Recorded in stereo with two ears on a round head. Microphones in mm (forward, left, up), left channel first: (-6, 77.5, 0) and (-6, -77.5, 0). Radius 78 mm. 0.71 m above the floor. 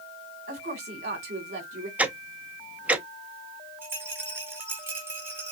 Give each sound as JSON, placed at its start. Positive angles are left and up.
{"t": 0.5, "sound": "a woman speaking", "side_deg": -45, "distance_m": 3.0}
{"t": 2.0, "sound": "ticking", "side_deg": -10, "distance_m": 0.7}
{"t": 3.8, "sound": "a rattle", "side_deg": -15, "distance_m": 1.9}